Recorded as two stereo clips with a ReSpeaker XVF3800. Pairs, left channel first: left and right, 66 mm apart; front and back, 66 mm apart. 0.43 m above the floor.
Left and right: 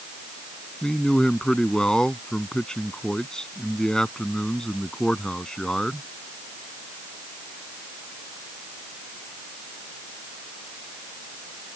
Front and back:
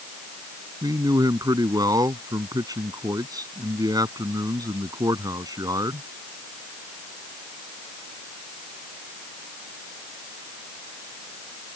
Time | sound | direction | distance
0.8 | a man speaking | 170° left | ?